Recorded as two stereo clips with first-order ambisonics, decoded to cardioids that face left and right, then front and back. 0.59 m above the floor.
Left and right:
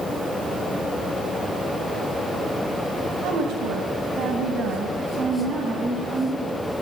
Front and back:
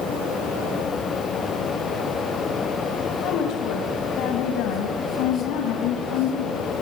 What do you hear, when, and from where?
3.2 s a woman speaking: 50° right, 3 m; by 6.7 s 15° right, 4.5 m